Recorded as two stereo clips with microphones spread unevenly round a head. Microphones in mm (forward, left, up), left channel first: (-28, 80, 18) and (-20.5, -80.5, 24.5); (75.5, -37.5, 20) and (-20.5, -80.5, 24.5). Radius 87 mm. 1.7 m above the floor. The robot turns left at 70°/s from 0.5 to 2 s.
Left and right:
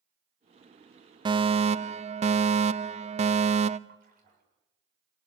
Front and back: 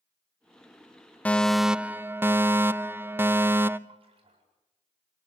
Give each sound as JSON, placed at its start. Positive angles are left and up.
{"t": 1.2, "sound": "a fire alarm", "azimuth_deg": -40, "distance_m": 0.8}
{"t": 3.9, "sound": "a splash", "azimuth_deg": -125, "distance_m": 8.0}